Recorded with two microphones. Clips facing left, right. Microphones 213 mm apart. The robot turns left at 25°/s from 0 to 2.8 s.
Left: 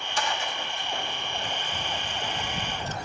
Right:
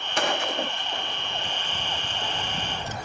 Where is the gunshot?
60° right (ahead or behind); by 3.0 s 15° right (ahead or behind).